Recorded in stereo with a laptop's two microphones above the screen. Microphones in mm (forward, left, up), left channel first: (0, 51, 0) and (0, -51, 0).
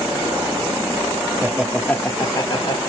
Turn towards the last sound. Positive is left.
turn(degrees=50)  # may be behind; listen again after turning